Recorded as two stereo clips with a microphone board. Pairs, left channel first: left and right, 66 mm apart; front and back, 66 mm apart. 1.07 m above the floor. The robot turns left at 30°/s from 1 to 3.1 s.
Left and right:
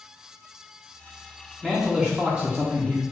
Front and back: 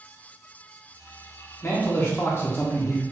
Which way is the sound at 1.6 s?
Straight ahead.